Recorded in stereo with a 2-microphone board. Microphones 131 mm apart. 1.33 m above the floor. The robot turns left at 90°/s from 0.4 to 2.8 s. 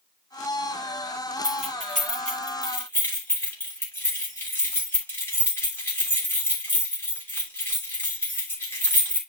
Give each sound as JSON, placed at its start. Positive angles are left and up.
{"t": 1.4, "sound": "keys jangling", "side_deg": 40, "distance_m": 3.0}